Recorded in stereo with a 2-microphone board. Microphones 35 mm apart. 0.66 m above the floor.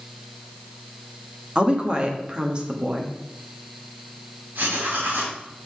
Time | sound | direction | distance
1.6 | a woman speaking | 25° right (ahead or behind) | 1.2 m
4.5 | writing | 70° right (ahead or behind) | 2.5 m